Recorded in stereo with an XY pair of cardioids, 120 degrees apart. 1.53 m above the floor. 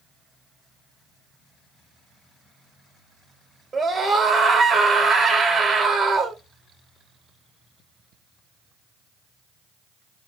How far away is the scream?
About 0.8 m.